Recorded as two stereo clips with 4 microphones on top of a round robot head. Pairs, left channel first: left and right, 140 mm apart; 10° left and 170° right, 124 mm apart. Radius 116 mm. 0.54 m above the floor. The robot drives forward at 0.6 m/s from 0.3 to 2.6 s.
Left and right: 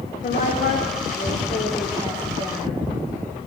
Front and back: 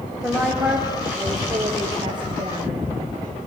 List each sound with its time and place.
0.2 s a woman speaking: 105° left, 1.4 m; by 2.9 s 145° left, 2 m